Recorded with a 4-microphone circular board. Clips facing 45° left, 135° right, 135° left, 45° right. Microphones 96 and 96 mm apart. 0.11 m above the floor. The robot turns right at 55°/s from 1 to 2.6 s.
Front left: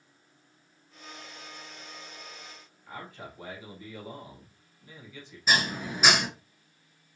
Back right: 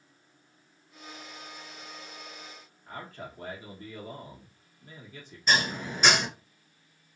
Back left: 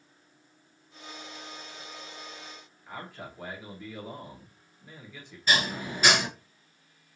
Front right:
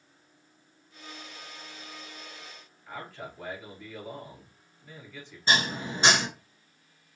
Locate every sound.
2.9 s a man speaking: 150° right, 1.5 m
5.5 s dishes clattering: 30° right, 0.9 m